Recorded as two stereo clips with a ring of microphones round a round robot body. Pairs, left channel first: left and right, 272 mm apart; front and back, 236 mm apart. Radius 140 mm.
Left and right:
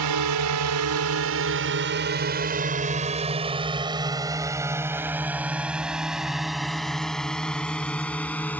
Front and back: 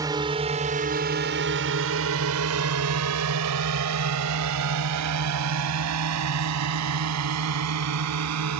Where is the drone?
100° right; by 8.6 s 175° left.